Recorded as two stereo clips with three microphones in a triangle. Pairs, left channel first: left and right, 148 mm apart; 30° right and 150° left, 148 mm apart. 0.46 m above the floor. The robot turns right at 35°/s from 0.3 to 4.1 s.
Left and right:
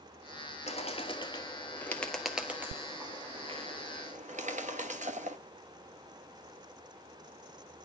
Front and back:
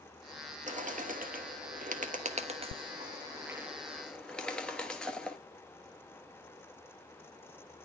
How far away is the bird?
About 1.2 m.